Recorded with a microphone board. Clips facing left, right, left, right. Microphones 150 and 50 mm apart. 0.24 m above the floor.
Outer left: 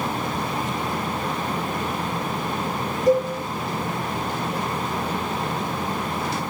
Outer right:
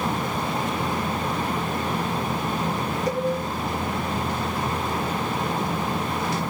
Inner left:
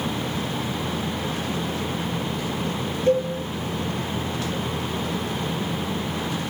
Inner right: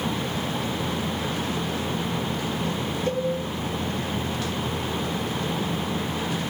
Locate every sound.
3.1 s a cowbell: 25° left (ahead or behind), 3.5 m